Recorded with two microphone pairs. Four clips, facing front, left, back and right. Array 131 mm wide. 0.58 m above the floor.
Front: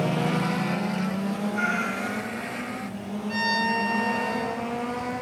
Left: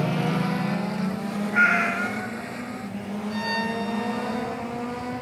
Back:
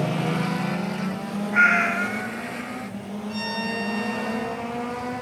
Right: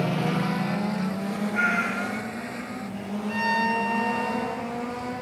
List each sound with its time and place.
1.5 s a cat meowing: 140° left, 1.8 m
3.3 s a violin: 10° right, 9.5 m